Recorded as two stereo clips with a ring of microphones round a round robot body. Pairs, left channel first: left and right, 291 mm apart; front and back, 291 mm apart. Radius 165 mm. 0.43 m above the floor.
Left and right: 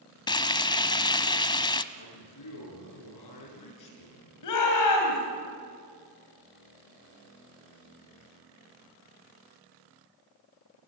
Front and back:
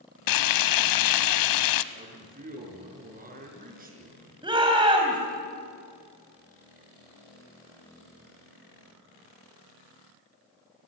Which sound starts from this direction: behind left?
A man speaking, at 1.9 s.